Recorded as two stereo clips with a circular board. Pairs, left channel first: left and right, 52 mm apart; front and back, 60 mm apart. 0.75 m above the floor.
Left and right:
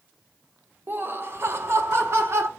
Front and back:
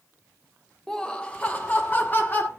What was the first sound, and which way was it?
Laughter, 80° right.